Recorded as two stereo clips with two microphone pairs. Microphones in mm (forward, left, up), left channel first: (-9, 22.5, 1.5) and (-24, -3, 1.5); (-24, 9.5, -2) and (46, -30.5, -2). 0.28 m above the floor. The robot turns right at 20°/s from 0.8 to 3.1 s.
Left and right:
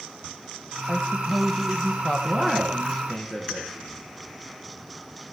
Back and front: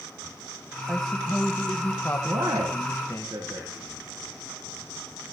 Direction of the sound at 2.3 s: 20° right.